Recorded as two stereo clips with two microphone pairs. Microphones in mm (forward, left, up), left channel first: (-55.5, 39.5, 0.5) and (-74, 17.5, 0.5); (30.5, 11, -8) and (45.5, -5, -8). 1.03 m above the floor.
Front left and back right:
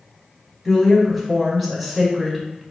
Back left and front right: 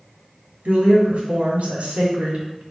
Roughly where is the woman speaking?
Ahead right.